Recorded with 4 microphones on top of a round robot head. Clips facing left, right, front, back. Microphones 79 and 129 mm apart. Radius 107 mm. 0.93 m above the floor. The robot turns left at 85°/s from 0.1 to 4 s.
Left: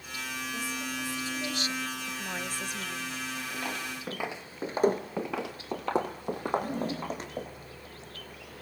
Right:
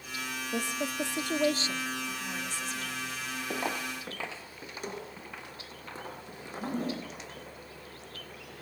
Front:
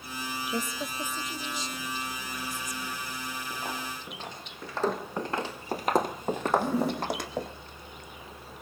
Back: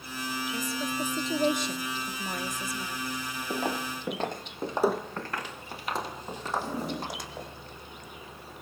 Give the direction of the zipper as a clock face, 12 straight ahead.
1 o'clock.